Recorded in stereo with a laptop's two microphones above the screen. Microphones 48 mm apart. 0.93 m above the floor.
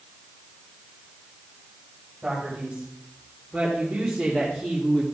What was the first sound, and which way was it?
A man speaking, 15° right (ahead or behind).